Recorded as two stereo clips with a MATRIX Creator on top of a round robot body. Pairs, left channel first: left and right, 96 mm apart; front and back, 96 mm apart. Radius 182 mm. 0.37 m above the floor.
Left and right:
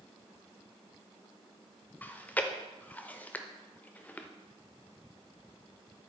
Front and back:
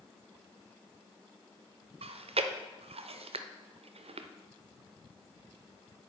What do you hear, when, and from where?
2.0 s chewing: 165° left, 0.5 m